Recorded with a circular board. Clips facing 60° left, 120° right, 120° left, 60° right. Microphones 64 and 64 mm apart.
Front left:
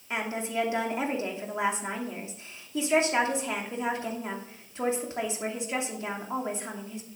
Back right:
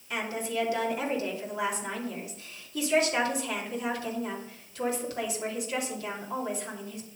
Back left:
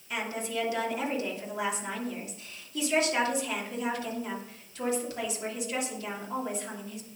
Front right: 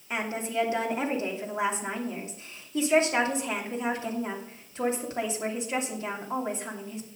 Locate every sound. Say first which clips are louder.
0.1 s a woman speaking: front left 1 dB, front right 3 dB; straight ahead, 2.5 m